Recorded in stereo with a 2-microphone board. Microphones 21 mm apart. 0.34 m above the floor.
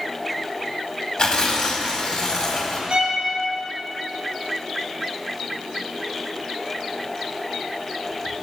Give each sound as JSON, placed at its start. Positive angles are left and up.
{"t": 1.2, "sound": "tearing paper", "side_deg": 50, "distance_m": 1.1}
{"t": 2.9, "sound": "a violin", "side_deg": -60, "distance_m": 1.0}